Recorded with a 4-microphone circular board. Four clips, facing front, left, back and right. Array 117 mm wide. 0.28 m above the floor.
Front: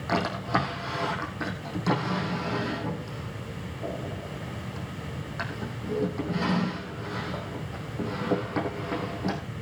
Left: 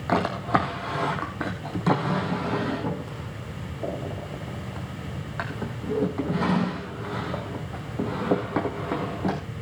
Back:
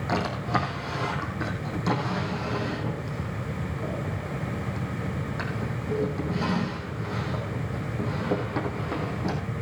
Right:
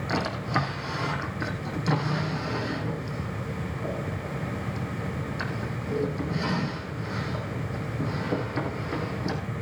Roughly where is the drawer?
Left.